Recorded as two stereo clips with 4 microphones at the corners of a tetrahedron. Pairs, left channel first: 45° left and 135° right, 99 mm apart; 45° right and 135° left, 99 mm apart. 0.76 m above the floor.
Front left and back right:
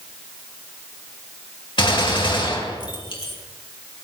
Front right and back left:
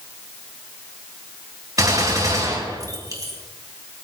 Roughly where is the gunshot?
Left.